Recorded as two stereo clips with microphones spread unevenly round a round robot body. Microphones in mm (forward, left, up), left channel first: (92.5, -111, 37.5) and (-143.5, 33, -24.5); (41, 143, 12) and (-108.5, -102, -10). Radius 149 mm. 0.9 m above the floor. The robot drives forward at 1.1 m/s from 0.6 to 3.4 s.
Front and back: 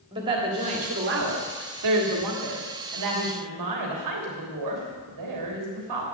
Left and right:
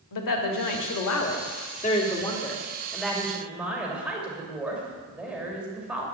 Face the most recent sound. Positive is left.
turn(degrees=150)